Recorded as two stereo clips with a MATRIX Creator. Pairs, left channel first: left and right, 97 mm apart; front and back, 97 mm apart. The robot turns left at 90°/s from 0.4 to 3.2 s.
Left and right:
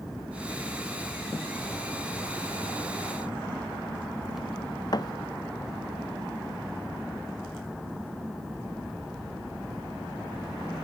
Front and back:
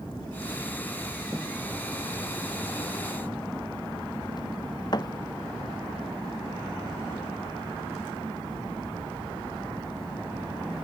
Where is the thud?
45° left.